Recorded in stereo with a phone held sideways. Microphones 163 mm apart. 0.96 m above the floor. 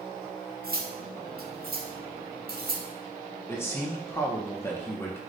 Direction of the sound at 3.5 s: 15° left (ahead or behind).